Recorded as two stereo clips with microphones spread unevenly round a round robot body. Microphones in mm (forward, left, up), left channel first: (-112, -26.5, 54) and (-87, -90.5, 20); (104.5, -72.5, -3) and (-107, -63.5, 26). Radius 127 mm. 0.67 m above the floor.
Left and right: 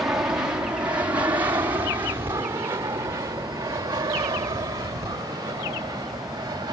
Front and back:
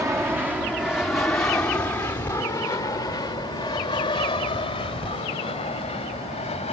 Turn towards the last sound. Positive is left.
turn(degrees=-60)